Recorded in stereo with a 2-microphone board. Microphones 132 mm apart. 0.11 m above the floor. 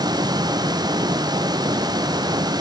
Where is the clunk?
I don't hear a clunk.